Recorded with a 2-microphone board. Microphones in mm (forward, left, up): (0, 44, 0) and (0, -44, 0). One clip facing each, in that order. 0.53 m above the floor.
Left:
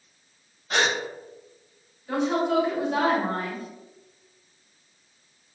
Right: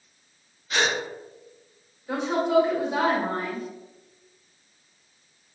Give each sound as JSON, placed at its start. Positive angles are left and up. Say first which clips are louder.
{"t": 0.7, "sound": "a gasp", "louder": "left 1 dB", "side_deg": 45, "distance_m": 1.0}
{"t": 2.1, "sound": "a woman speaking", "louder": "right 1 dB", "side_deg": -15, "distance_m": 2.0}